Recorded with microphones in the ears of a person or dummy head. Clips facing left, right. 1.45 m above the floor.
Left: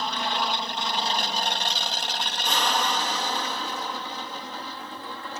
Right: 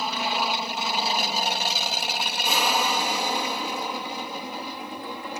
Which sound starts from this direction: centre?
An aircraft, at 0.0 s.